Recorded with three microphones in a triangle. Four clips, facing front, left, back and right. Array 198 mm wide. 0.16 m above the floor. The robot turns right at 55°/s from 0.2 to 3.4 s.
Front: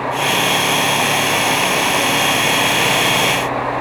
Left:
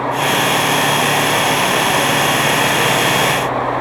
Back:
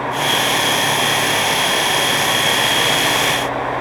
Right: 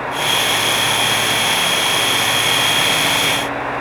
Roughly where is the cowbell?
No cowbell in this recording.